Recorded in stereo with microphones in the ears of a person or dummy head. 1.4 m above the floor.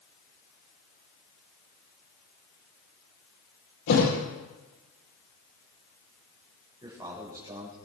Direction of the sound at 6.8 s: 20° right (ahead or behind).